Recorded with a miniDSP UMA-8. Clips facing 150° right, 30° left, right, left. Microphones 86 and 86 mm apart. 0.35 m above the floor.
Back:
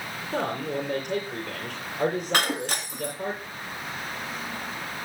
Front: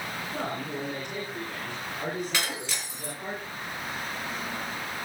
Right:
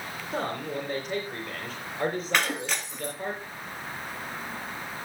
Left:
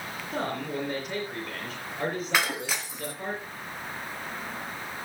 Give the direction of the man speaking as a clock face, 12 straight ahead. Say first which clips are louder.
Back 7 dB, even; 6 o'clock.